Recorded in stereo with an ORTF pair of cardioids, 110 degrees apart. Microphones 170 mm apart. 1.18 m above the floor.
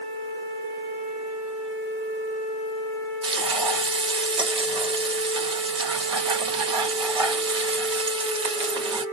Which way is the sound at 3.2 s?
30° right.